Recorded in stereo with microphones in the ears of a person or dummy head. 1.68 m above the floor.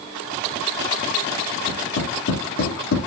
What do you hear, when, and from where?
1.7 s tapping: 75° left (ahead or behind), 3.5 m